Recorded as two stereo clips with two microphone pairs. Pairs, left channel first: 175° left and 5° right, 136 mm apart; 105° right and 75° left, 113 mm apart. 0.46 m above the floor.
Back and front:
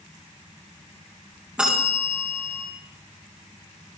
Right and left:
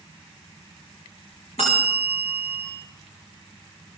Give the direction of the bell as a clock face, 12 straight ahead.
3 o'clock.